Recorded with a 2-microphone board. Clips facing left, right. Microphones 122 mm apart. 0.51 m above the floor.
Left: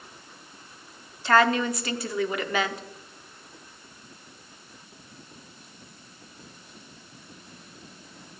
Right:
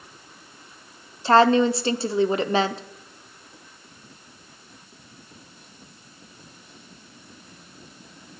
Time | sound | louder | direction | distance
1.2 | a woman speaking | right 5 dB | 30° right (ahead or behind) | 0.7 m